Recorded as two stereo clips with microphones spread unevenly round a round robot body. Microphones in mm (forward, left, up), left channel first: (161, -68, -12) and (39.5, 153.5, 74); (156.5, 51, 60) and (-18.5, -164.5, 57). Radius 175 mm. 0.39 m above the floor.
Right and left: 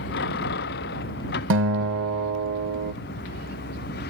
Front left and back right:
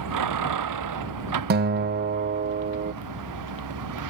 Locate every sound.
0.0 s a vehicle: 120° right; by 4.1 s 125° right
1.5 s a guitar: 175° left